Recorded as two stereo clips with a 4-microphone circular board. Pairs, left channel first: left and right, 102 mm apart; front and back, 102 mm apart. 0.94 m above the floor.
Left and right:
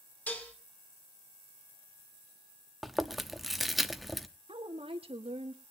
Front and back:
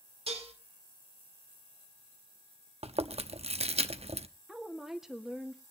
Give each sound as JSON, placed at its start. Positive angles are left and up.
{"t": 0.3, "sound": "dishes clattering", "azimuth_deg": 165, "distance_m": 2.0}
{"t": 2.8, "sound": "chewing", "azimuth_deg": 180, "distance_m": 0.9}
{"t": 4.5, "sound": "a woman speaking", "azimuth_deg": -95, "distance_m": 1.9}